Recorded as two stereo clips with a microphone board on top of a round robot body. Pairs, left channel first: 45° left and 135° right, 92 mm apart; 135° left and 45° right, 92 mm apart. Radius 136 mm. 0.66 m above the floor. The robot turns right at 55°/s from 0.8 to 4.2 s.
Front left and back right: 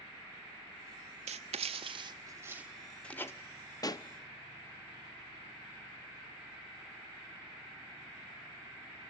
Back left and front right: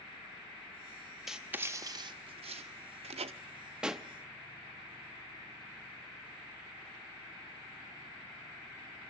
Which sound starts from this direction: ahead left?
A pop, at 3.8 s.